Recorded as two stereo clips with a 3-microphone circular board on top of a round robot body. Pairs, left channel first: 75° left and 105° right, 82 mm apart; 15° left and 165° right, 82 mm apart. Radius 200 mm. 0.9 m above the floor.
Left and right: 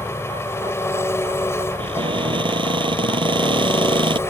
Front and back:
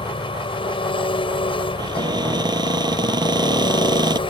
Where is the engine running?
15° left.